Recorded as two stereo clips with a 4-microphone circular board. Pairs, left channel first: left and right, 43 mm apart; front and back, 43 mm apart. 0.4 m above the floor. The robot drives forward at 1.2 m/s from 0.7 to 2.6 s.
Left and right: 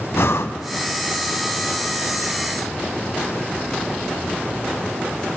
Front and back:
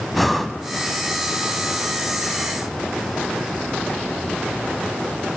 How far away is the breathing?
About 0.5 m.